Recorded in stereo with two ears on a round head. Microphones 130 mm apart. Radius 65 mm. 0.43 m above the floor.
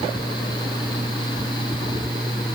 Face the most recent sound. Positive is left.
No sound to turn to.